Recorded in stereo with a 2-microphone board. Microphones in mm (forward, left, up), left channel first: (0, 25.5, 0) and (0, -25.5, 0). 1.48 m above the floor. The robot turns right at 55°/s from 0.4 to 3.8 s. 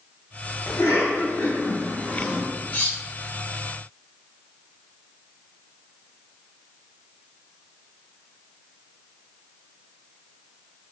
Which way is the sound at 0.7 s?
85° left.